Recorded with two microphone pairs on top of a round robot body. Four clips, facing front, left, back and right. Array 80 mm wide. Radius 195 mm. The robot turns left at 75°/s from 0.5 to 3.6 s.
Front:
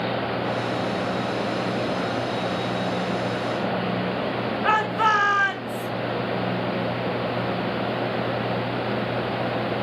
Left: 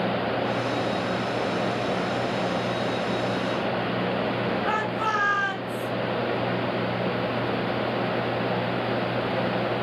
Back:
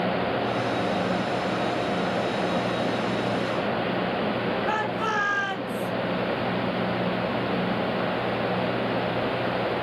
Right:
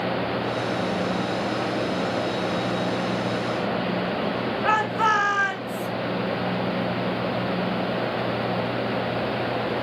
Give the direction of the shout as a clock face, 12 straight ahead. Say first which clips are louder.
Right 4 dB, front 5 dB; 1 o'clock.